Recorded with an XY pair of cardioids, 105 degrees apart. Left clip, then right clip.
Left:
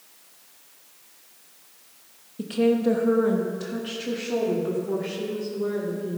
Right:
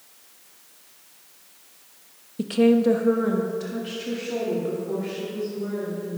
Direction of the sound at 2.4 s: 30° right.